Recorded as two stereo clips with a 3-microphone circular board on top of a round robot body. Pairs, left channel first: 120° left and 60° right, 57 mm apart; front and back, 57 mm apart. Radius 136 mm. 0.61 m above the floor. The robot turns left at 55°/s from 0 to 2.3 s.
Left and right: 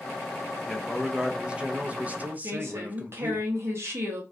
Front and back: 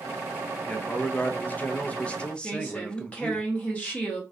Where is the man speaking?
35° left, 0.6 m; by 3.4 s 55° right, 0.6 m.